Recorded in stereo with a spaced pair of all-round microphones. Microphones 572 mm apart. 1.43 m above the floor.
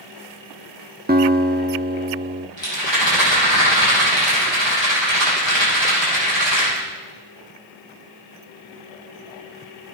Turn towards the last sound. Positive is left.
turn(degrees=50)  # may be behind; listen again after turning